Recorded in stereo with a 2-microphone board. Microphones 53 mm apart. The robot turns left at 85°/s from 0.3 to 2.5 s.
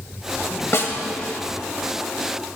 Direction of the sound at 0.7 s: 55° left (ahead or behind).